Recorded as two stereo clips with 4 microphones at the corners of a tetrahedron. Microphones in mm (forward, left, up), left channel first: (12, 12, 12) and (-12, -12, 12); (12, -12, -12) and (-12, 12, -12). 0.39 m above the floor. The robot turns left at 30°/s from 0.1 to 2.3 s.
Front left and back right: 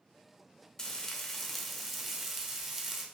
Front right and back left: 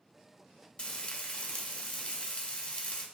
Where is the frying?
15° right, 0.5 m; by 3.0 s 60° right, 0.5 m.